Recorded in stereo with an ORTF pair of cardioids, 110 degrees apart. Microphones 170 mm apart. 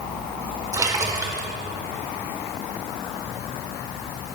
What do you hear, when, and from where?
0.7 s a splash: 20° right, 1.6 m